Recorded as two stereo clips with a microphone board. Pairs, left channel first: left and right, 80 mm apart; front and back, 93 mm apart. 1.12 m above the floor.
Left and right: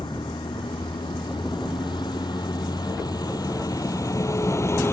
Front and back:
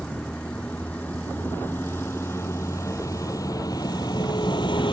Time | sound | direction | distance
0.0 | a vehicle | 80° left | ?